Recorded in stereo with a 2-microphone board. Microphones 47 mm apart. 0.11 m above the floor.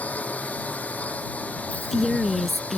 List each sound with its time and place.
0.0 s a drone: 35° left (ahead or behind)
1.7 s a woman speaking: 5° left (ahead or behind)